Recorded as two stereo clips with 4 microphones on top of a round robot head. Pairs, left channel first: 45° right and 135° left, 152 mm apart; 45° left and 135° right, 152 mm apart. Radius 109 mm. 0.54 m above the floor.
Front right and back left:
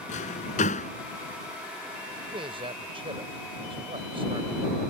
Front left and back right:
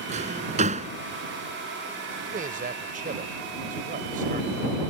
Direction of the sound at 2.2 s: 170° right.